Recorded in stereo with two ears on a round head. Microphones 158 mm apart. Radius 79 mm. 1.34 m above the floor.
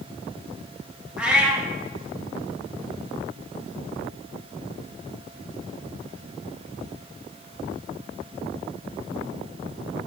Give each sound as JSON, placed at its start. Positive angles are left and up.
{"t": 1.2, "sound": "a cat meowing", "side_deg": -5, "distance_m": 1.2}